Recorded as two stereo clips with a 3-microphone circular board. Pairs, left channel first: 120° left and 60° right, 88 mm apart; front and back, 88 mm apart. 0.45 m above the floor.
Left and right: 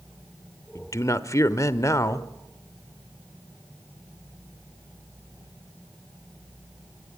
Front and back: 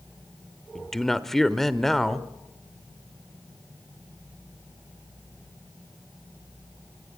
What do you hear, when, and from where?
0.8 s a man speaking: 85° left, 1.2 m